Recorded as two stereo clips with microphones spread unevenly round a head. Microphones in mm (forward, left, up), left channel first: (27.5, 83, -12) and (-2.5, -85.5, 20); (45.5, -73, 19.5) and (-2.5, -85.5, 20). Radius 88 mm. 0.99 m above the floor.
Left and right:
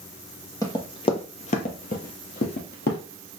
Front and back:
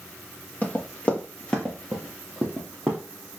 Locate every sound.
0.6 s running footsteps: 10° left, 1.1 m; by 3.0 s 115° left, 1.5 m